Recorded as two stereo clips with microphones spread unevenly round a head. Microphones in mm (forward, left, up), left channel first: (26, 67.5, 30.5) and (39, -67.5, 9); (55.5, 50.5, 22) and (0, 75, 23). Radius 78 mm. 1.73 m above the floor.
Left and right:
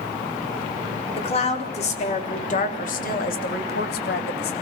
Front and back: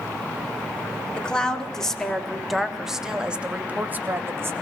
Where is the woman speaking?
50° left, 4.5 m; by 4.5 s 110° left, 2.5 m.